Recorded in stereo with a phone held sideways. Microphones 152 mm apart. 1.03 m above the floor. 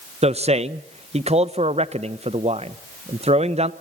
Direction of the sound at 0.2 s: 45° right (ahead or behind).